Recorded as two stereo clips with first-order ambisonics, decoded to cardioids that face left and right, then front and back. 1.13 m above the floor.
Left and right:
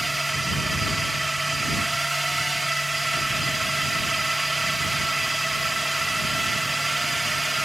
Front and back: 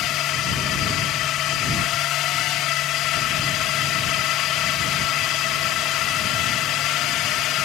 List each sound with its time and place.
0.0 s a drone: 5° right